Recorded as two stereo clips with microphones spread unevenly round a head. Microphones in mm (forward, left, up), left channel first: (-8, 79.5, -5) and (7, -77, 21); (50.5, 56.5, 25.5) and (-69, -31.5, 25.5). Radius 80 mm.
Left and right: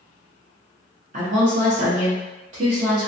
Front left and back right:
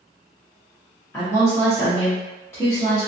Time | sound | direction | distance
1.1 | a woman speaking | 40° right | 1.2 m